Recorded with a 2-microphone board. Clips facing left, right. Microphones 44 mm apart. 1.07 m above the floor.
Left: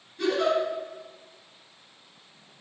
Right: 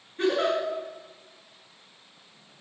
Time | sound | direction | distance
0.2 | a giggle | 35° right (ahead or behind) | 6 m